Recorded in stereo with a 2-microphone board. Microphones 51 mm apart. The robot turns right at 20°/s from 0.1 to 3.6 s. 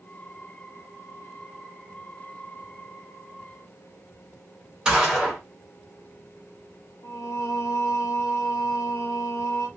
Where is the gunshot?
15° right (ahead or behind), 1.5 m.